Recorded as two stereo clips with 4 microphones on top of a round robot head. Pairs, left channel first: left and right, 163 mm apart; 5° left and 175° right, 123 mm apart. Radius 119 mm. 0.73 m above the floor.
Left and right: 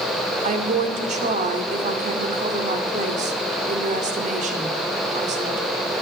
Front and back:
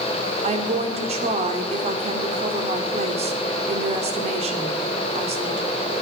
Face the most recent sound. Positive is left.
turn(degrees=-135)